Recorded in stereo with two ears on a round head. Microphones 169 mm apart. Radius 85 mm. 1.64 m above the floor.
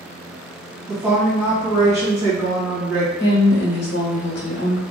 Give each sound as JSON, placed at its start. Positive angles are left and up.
{"t": 0.9, "sound": "a woman speaking", "side_deg": -15, "distance_m": 1.4}
{"t": 3.2, "sound": "a woman speaking", "side_deg": 60, "distance_m": 1.2}